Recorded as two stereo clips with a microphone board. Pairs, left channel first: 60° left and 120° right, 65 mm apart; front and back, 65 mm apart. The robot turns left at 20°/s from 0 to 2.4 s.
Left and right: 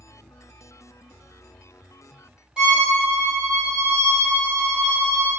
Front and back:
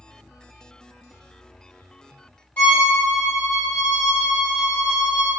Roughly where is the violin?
Ahead right.